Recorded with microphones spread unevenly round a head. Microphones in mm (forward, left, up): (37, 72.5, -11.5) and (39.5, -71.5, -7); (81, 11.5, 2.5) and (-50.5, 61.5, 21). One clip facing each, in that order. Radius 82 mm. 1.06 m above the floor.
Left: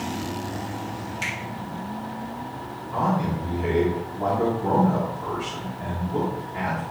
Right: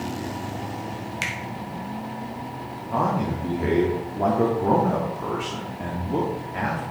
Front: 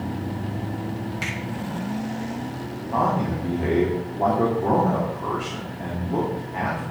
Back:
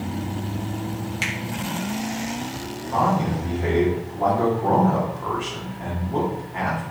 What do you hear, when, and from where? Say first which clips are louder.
1.2 s a finger snap: even, back 1 dB; 130° right, 1.9 m
2.9 s a man speaking: even, back 1 dB; 80° right, 2.5 m